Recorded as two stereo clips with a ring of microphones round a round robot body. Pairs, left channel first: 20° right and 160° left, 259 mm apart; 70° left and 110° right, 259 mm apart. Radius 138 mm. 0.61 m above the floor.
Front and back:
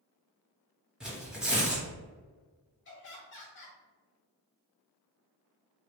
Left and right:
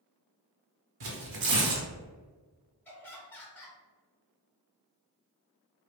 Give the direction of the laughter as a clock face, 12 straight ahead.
12 o'clock.